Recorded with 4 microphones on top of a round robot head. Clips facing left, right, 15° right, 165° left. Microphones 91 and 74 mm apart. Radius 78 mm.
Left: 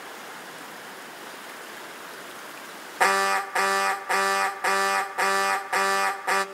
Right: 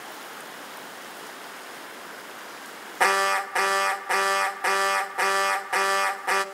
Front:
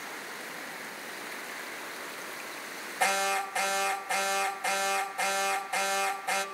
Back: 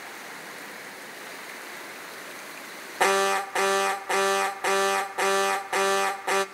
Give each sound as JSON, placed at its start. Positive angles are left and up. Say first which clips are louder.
{"t": 3.0, "sound": "an alarm", "louder": "even, back 6 dB", "azimuth_deg": 180, "distance_m": 1.5}